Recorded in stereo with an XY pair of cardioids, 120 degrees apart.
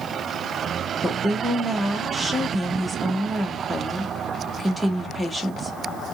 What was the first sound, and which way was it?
A woman speaking, straight ahead.